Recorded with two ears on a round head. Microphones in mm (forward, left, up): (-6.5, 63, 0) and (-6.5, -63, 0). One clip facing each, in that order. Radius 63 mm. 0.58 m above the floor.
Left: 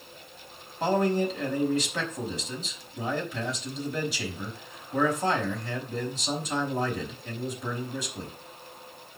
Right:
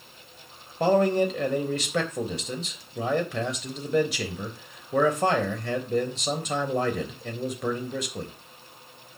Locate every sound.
0.8 s a man speaking: 55° right (ahead or behind), 3.5 m